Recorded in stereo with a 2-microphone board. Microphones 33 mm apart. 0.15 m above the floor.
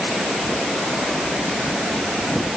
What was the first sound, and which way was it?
Only background noise.